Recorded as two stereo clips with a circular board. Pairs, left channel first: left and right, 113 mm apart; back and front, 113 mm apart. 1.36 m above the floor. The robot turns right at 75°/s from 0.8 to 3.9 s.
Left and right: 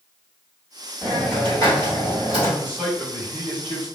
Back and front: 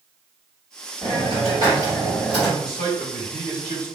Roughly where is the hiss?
Ahead.